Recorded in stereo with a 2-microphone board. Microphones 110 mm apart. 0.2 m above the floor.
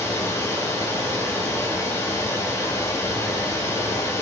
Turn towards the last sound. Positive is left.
turn(degrees=30)  # may be behind; listen again after turning